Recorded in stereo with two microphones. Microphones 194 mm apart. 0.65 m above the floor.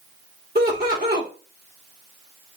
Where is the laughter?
55° right (ahead or behind), 2 m.